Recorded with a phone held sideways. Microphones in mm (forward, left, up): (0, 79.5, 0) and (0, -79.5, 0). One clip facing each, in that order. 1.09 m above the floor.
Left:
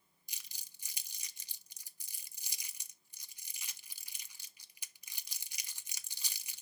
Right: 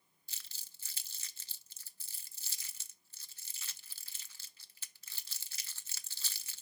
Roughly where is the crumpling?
Centre.